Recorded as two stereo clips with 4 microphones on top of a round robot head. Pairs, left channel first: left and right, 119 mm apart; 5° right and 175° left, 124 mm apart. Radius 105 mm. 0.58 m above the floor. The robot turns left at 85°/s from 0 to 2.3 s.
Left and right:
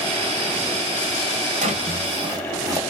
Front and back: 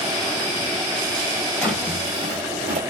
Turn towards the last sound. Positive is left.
turn(degrees=-145)